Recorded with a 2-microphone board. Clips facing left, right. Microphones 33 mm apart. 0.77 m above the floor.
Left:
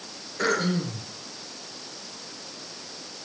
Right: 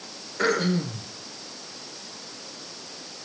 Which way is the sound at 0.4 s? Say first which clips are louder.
Right 1 dB; 10° right (ahead or behind).